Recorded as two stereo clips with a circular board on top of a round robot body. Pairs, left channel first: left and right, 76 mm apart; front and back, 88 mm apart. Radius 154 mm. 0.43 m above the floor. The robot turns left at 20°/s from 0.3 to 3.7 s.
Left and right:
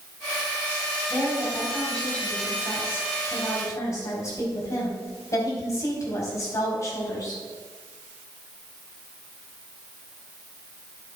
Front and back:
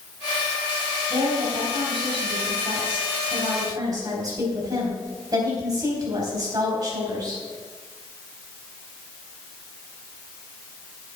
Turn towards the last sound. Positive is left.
turn(degrees=140)